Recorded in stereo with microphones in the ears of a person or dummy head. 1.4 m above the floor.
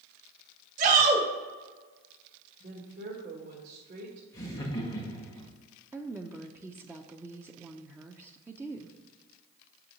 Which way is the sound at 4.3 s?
15° left (ahead or behind).